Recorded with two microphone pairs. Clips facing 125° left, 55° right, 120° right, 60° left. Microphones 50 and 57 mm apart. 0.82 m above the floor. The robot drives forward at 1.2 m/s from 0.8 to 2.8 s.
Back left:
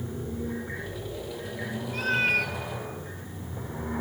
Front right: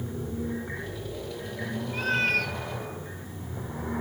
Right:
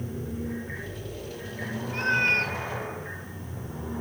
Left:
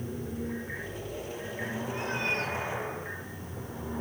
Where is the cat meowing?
135° right, 0.8 m; by 2.6 s 155° right, 1.4 m.